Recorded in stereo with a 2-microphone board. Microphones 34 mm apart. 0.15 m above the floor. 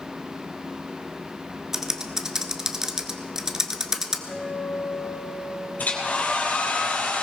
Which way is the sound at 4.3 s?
25° left (ahead or behind).